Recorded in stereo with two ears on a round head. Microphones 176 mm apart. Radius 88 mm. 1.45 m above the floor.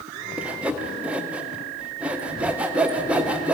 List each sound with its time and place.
0.4 s sawing: 5° right (ahead or behind), 0.5 m